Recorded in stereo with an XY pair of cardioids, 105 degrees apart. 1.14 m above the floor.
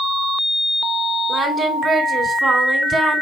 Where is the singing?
40° right, 3 m.